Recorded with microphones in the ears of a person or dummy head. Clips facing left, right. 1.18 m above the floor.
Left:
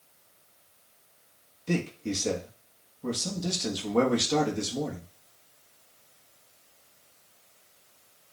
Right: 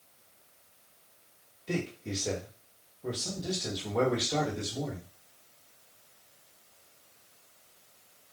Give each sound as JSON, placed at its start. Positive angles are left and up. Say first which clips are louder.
{"t": 1.7, "sound": "a man speaking", "louder": "left 4 dB", "side_deg": 65, "distance_m": 1.5}